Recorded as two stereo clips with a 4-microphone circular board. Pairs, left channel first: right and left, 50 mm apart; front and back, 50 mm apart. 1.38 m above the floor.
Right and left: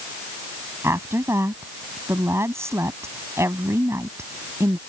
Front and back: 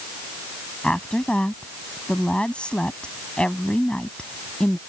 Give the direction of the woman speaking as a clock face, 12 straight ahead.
10 o'clock.